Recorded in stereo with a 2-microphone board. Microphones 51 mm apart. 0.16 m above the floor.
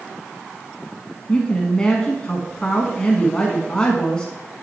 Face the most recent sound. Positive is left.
turn(degrees=20)  # may be behind; listen again after turning